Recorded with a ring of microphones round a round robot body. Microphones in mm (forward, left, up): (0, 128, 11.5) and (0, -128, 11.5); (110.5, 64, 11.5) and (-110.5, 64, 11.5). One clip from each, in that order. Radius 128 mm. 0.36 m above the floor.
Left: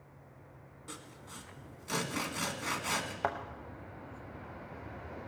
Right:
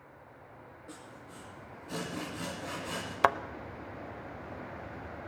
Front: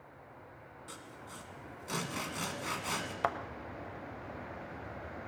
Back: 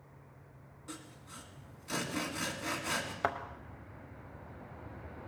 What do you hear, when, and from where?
0.9 s sawing: 65° left, 1.8 m
3.2 s a thud: 75° right, 0.5 m